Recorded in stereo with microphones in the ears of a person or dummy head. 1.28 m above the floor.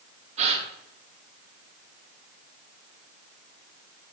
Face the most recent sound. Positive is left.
turn(degrees=-35)  # may be behind; listen again after turning